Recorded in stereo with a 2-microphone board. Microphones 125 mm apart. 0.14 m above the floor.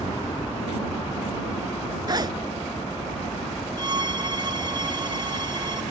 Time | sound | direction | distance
0.0 | a helicopter | 35° left (ahead or behind) | ?
2.1 | a zipper | 35° right (ahead or behind) | ?
3.8 | a violin | 40° right (ahead or behind) | ?